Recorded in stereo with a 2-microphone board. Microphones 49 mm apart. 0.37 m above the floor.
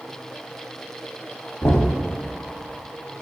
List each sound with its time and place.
1.6 s knocking: 65° left (ahead or behind), 1.6 m